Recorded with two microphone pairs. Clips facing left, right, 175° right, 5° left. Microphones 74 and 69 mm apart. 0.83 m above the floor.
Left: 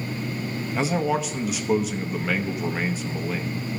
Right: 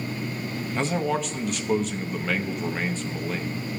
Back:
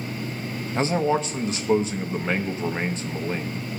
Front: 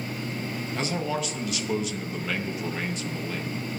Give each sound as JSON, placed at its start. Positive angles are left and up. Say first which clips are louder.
{"t": 0.8, "sound": "a man speaking", "louder": "left 2 dB, back 8 dB", "azimuth_deg": 170, "distance_m": 0.8}